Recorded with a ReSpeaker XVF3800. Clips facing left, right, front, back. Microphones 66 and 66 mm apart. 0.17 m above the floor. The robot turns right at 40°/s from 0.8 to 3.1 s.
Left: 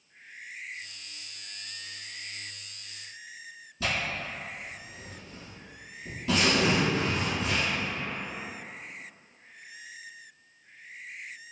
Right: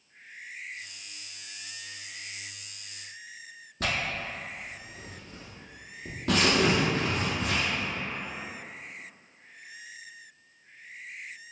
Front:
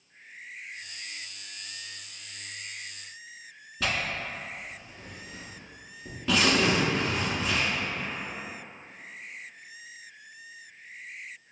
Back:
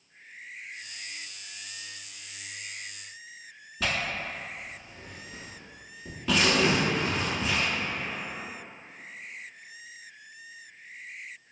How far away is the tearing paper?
About 0.9 m.